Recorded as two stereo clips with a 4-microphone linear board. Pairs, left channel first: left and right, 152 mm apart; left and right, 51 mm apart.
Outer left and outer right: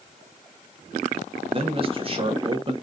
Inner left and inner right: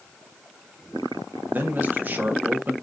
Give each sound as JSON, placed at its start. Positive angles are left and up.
{"t": 1.5, "sound": "a man speaking", "side_deg": -40, "distance_m": 0.9}